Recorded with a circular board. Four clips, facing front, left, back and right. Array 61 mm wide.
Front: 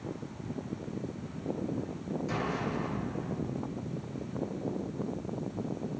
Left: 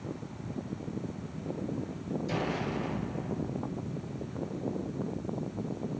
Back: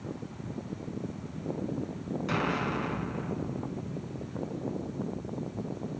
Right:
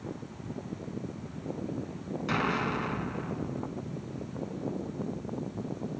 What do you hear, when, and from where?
2.3 s an explosion: 120° right, 1.8 m